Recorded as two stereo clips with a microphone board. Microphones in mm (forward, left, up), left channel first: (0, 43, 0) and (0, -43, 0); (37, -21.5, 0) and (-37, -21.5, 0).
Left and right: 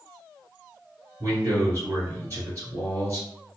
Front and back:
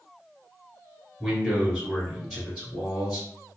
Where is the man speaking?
90° right, 1.7 m.